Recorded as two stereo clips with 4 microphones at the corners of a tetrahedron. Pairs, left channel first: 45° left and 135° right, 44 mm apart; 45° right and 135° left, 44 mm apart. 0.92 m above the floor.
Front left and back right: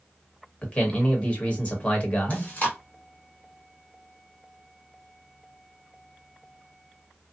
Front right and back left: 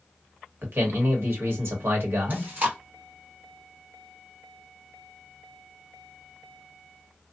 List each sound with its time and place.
0.6 s a man speaking: 105° left, 1.2 m
2.3 s chewing: 95° left, 1.3 m